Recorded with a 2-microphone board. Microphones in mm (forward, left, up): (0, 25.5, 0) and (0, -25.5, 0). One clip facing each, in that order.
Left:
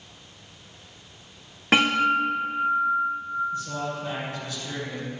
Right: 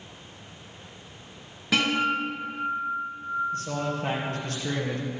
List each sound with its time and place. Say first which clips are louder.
1.7 s a guitar: left 4 dB; 45° left (ahead or behind), 3.5 m
3.5 s a man speaking: right 1 dB; 70° right (ahead or behind), 4 m